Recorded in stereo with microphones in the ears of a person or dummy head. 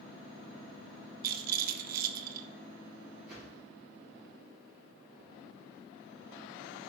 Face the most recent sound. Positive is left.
turn(degrees=-5)  # may be behind; listen again after turning